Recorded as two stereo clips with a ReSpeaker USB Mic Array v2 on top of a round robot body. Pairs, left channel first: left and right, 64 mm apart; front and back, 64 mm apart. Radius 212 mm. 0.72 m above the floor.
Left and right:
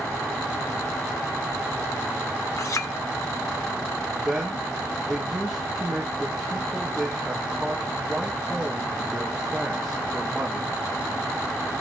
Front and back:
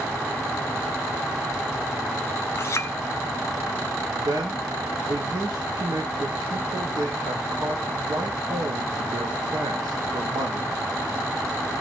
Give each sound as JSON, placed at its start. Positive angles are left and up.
{"t": 2.6, "sound": "a clink", "azimuth_deg": 50, "distance_m": 0.6}
{"t": 4.2, "sound": "a man speaking", "azimuth_deg": 180, "distance_m": 2.5}